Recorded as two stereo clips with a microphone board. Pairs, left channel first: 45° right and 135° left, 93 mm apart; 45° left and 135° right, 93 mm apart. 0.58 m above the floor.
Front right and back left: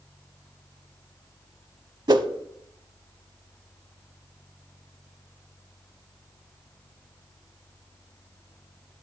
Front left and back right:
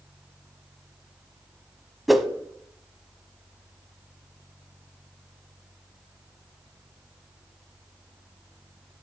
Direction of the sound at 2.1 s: 135° left.